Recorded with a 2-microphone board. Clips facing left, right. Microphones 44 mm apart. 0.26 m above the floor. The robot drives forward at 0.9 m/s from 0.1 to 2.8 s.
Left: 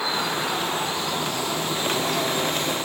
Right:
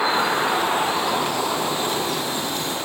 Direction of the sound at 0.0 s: 25° right (ahead or behind).